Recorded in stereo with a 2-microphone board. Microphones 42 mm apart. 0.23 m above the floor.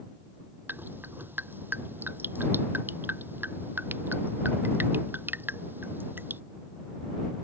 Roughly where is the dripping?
Right.